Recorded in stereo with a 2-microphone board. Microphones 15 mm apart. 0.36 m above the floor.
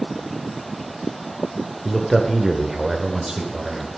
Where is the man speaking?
20° left (ahead or behind), 1.2 m; by 3.9 s 40° right (ahead or behind), 1.9 m.